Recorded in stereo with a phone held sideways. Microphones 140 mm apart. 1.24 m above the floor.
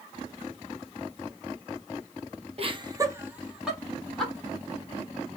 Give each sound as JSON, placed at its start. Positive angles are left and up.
{"t": 2.6, "sound": "laughter", "side_deg": -45, "distance_m": 0.8}